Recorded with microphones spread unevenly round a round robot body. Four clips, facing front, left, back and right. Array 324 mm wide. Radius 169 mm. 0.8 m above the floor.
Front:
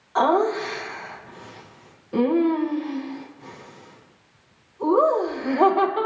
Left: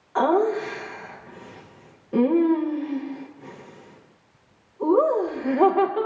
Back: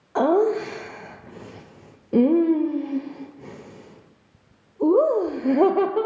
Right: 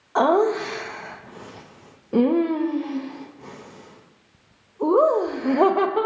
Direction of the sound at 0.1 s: 155° right.